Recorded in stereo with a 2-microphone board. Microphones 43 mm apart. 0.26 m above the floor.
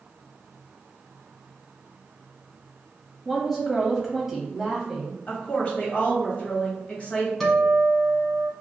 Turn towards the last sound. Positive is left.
turn(degrees=5)  # may be behind; listen again after turning